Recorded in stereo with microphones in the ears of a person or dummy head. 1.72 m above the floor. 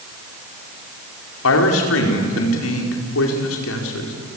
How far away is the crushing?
I don't hear crushing.